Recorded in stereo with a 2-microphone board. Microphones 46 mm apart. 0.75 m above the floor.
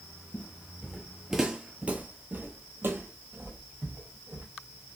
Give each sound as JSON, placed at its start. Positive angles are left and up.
{"t": 0.3, "sound": "footsteps", "side_deg": 30, "distance_m": 0.9}